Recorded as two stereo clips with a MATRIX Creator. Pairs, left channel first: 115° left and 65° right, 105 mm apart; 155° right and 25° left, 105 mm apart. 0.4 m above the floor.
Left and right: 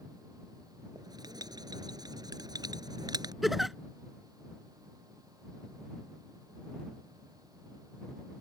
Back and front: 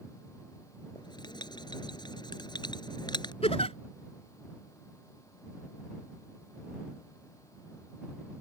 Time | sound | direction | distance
0.9 | writing | 115° right | ?
3.4 | a giggle | 155° right | ?